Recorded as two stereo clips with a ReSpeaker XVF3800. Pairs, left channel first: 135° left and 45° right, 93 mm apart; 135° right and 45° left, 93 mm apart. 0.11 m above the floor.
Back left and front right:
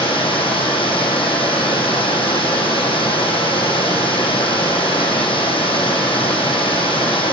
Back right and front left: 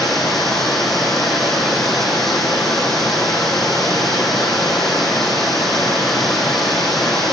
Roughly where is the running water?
Behind left.